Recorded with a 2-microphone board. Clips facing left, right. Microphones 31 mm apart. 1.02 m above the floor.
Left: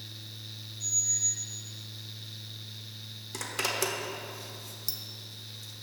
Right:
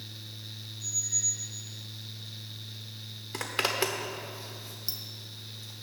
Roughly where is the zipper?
Right.